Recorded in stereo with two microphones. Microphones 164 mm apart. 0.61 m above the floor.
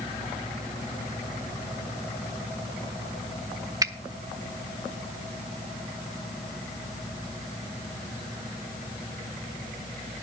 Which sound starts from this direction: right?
A finger snap, at 3.8 s.